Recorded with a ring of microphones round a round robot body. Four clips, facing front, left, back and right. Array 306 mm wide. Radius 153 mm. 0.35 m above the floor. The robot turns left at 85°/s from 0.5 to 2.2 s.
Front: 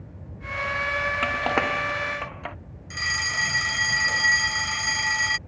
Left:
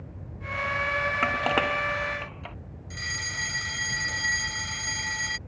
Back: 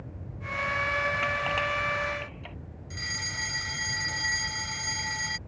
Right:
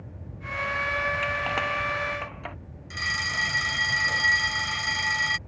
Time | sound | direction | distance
1.2 | crushing | 60° left | ?
2.9 | a fire alarm | 40° right | ?